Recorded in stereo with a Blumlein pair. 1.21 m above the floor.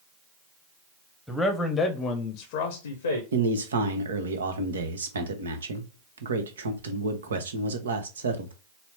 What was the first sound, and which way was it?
A man speaking, straight ahead.